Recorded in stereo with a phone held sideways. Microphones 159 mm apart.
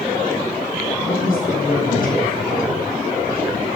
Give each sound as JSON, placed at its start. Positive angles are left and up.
{"t": 1.0, "sound": "a man speaking", "side_deg": 65, "distance_m": 8.0}